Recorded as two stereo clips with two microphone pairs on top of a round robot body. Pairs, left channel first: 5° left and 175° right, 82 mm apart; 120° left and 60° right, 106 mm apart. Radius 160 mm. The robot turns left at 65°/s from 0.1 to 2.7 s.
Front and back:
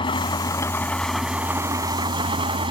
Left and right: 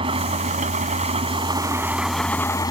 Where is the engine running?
20° right; by 2.7 s 170° left.